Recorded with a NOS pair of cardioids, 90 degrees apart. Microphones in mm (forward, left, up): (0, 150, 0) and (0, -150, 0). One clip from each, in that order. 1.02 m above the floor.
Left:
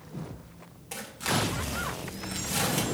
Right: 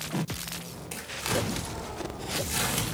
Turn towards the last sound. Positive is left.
turn(degrees=-10)